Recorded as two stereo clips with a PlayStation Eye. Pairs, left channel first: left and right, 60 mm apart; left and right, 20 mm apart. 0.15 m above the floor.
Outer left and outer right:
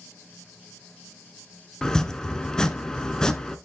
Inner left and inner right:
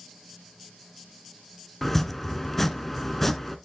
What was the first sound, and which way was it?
Chopping, 10° left (ahead or behind).